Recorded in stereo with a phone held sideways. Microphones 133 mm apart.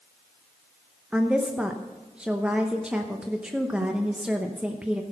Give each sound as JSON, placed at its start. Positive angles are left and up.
{"t": 1.1, "sound": "a woman speaking", "side_deg": -10, "distance_m": 0.8}